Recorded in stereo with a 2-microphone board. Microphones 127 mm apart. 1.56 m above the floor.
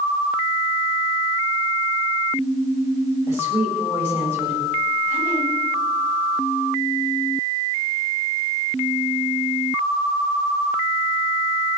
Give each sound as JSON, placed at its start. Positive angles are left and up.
{"t": 3.3, "sound": "a woman speaking", "side_deg": -20, "distance_m": 8.0}